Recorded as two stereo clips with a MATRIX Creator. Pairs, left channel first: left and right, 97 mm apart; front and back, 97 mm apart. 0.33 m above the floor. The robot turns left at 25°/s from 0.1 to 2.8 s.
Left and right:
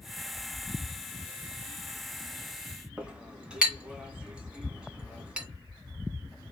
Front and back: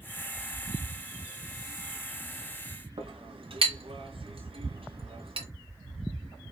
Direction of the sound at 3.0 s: 170° right.